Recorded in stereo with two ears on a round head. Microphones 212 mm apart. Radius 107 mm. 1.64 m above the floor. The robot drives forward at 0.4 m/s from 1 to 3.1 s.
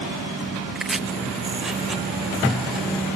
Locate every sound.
0.8 s chopping: centre (ahead or behind)